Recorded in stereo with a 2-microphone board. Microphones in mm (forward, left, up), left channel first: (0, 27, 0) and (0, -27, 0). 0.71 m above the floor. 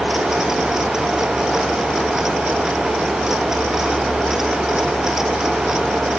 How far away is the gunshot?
I don't hear a gunshot.